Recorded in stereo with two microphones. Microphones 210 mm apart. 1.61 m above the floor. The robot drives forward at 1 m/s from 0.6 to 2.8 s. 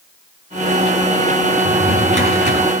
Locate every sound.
1.6 s a drawer: 60° right (ahead or behind), 4.5 m; by 2.7 s 50° right (ahead or behind), 5 m